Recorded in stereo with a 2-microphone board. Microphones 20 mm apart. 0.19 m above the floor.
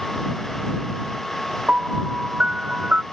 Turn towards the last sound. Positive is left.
turn(degrees=-70)  # may be behind; listen again after turning